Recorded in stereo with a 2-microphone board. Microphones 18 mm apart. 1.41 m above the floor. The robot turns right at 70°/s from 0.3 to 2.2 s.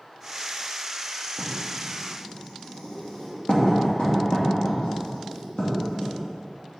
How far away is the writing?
About 3 m.